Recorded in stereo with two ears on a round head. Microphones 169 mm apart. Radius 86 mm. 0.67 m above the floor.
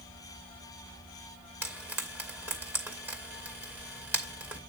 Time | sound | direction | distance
1.6 | frying | 10° right (ahead or behind) | 2.5 m